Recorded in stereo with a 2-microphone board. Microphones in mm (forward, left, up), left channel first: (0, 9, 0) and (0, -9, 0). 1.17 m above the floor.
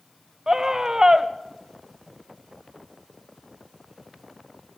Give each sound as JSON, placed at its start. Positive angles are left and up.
{"t": 0.5, "sound": "a scream", "side_deg": -35, "distance_m": 0.8}